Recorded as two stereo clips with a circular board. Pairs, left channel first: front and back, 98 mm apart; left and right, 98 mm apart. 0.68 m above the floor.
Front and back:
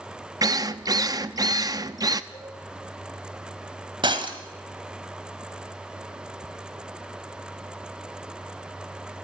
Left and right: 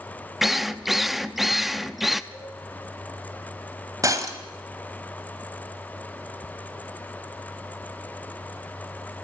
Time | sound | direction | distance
0.4 | a drill | 175° right | 0.7 m
2.3 | a cowbell | 60° right | 9 m
4.0 | breaking glass | 145° right | 2 m